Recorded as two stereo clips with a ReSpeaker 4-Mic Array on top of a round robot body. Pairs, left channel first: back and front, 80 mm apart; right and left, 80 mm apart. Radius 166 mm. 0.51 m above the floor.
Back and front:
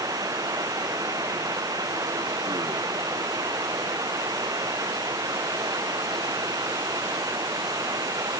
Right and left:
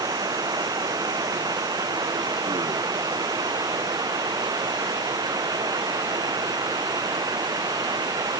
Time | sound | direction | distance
0.0 | running water | 50° left | ?